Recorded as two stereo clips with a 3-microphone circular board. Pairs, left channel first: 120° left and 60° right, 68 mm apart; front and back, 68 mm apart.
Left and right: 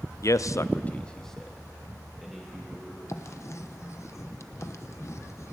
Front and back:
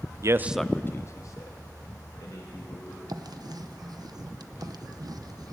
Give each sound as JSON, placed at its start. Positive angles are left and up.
{"t": 0.2, "sound": "a man speaking", "azimuth_deg": 155, "distance_m": 0.6}
{"t": 3.1, "sound": "writing", "azimuth_deg": 165, "distance_m": 0.9}